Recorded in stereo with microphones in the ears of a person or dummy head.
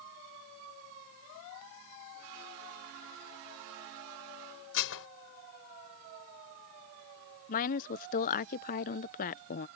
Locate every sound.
4.7 s dishes clattering: 70° left (ahead or behind)
7.5 s a woman speaking: 45° left (ahead or behind)